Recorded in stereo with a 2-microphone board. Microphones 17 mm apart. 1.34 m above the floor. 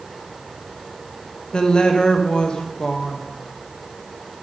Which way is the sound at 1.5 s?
60° left (ahead or behind).